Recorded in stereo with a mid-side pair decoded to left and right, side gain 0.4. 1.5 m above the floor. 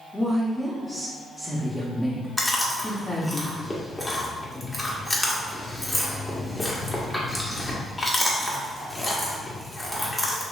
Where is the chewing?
25° left, 1.3 m.